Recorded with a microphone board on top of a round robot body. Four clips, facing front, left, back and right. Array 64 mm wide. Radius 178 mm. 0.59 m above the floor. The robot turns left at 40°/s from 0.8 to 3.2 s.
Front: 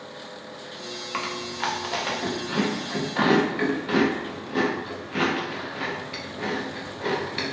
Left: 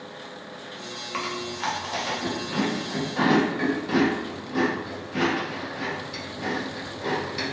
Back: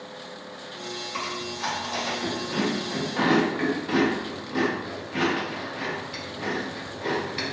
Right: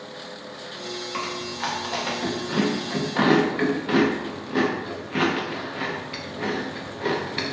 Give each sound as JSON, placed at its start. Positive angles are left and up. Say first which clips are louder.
{"t": 1.1, "sound": "chewing", "louder": "left 2 dB, front 4 dB", "azimuth_deg": 15, "distance_m": 0.8}